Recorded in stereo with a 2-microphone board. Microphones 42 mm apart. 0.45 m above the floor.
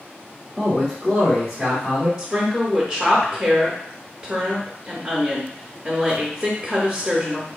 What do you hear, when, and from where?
0.6 s a man speaking: 10° left (ahead or behind), 1.4 m; by 2.1 s 40° right (ahead or behind), 2.5 m
2.2 s a woman speaking: 15° right (ahead or behind), 0.9 m